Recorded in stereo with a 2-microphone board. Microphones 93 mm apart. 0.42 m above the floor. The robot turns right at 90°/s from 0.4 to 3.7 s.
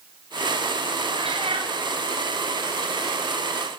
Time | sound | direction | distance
1.1 | a cat meowing | 115° right | 4 m